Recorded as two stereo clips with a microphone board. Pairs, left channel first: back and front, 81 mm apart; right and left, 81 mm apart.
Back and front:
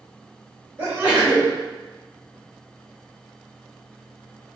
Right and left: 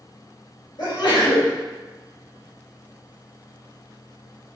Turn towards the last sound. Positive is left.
turn(degrees=-65)